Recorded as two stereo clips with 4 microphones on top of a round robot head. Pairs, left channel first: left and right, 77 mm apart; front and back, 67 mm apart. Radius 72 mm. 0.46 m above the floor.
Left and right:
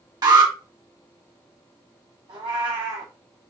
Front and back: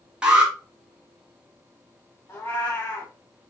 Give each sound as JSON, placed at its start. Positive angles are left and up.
{"t": 0.2, "sound": "an alarm", "azimuth_deg": -105, "distance_m": 2.0}
{"t": 2.3, "sound": "a cat meowing", "azimuth_deg": -65, "distance_m": 2.0}